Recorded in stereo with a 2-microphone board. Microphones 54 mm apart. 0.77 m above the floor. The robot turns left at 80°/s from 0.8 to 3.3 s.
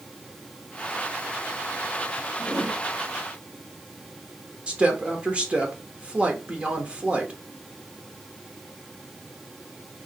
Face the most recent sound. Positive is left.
turn(degrees=-20)  # may be behind; listen again after turning